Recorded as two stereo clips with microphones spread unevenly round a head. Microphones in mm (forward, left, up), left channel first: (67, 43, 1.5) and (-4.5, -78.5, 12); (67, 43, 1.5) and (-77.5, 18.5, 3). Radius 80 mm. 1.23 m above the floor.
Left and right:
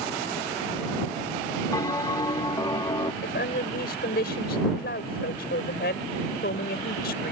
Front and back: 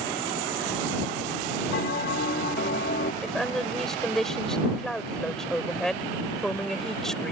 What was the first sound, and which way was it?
A bell, 5° right.